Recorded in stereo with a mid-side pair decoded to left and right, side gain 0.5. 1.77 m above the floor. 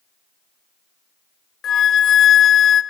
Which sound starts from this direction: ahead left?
A flute, at 1.6 s.